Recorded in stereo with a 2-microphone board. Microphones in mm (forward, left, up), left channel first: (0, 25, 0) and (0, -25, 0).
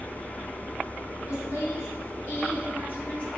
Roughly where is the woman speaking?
Left.